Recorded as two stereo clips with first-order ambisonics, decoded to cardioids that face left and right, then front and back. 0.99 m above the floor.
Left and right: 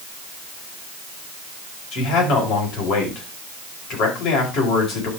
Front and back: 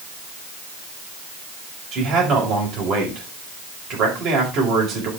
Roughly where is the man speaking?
Behind left.